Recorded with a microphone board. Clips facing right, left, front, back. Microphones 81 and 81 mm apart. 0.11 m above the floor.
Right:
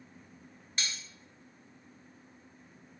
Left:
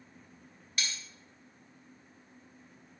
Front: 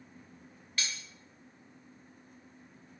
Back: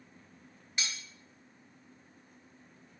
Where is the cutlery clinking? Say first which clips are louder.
Left 1 dB, even; 125° right, 0.9 m.